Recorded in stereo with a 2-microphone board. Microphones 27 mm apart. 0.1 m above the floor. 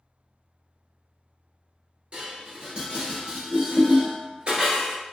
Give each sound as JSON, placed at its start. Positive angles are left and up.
{"t": 2.1, "sound": "dishes clattering", "side_deg": -40, "distance_m": 1.1}